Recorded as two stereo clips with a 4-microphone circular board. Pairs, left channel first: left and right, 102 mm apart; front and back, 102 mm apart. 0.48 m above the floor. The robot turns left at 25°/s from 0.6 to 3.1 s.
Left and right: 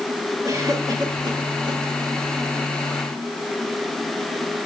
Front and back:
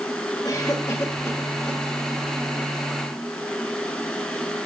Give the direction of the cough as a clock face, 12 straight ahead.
1 o'clock.